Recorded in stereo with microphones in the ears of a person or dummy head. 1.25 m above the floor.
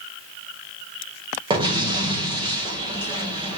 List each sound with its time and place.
1.5 s an explosion: 25° right (ahead or behind), 1.5 m